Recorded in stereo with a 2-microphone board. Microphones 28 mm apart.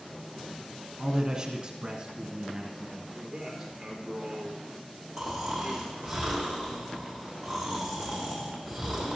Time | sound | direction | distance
1.0 | a man speaking | 20° right (ahead or behind) | 1.2 m
3.1 | a man speaking | 5° right (ahead or behind) | 3 m
5.2 | snoring | centre (ahead or behind) | 3 m